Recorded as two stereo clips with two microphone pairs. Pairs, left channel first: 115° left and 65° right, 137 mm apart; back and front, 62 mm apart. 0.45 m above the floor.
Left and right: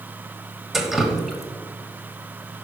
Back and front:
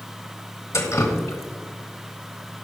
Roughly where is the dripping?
Behind right.